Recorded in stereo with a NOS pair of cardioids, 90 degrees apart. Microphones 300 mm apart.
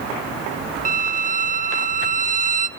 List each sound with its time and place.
0.8 s a violin: 25° right, 0.9 m